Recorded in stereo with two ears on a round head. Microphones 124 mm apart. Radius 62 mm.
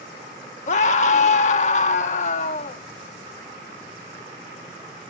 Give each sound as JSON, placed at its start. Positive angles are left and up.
{"t": 0.7, "sound": "a scream", "side_deg": 55, "distance_m": 1.5}